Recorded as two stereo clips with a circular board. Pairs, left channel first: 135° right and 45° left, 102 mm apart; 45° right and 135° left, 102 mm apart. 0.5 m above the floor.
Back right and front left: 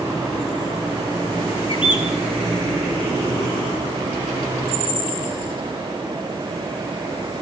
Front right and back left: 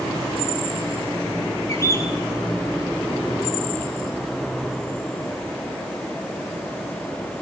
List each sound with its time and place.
1.7 s a bird: 105° right, 4 m